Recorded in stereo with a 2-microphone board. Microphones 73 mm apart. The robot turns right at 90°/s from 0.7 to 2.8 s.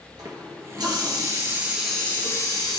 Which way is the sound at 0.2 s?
105° right.